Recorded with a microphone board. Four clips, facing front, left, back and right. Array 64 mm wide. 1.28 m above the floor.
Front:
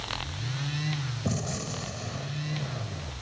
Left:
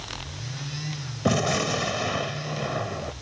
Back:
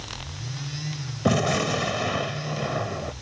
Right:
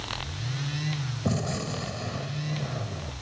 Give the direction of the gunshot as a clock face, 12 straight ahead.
7 o'clock.